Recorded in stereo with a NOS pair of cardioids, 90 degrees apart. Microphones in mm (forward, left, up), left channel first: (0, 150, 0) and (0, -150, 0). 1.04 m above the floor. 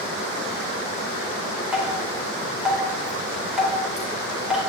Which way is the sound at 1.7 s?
5° right.